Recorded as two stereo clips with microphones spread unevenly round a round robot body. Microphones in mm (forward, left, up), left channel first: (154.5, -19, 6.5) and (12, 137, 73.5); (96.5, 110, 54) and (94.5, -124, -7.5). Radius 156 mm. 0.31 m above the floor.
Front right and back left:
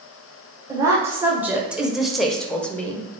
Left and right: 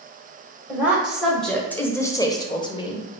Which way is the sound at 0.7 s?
135° right.